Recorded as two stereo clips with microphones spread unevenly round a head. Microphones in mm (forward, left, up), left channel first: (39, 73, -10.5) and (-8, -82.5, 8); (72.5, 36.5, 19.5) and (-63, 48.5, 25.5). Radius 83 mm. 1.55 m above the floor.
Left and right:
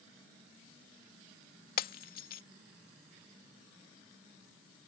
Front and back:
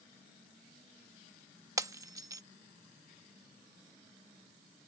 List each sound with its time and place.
1.8 s breaking glass: 110° left